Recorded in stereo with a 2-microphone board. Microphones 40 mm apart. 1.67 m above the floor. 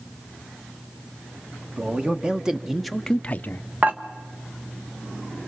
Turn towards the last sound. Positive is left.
turn(degrees=-40)  # may be behind; listen again after turning